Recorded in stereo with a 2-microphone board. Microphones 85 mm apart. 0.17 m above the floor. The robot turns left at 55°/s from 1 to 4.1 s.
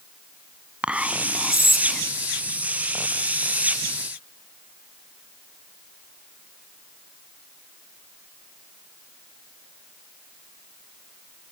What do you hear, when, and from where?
0.8 s whispering: 15° right (ahead or behind), 1.5 m; by 2.0 s 5° left (ahead or behind), 1.5 m